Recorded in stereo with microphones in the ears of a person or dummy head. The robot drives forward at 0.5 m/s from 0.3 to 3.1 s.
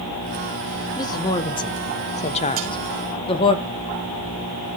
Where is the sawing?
40° right (ahead or behind), 3 m.